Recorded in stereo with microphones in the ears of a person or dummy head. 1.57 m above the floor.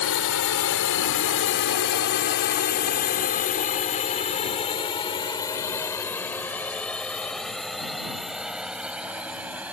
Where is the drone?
90° left; by 9.8 s 10° right (ahead or behind).